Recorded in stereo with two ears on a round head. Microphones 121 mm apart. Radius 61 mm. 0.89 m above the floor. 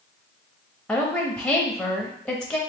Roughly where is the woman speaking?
Centre.